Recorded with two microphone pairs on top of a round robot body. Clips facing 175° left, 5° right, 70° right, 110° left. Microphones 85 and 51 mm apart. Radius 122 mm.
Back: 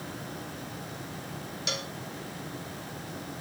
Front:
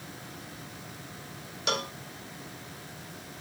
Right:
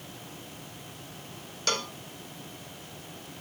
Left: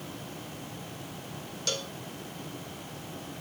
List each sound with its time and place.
1.7 s a cowbell: 45° right